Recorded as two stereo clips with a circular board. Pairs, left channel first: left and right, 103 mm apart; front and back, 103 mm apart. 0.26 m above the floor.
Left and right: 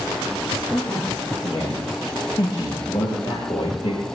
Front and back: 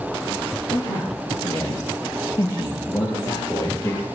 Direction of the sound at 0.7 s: 25° left.